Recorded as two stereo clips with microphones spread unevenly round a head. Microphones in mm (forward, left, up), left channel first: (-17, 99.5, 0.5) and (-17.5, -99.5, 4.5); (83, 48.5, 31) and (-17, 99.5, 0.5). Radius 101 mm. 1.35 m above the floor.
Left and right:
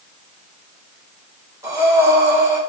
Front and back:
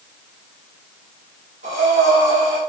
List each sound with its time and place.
1.6 s breathing: 165° right, 1.1 m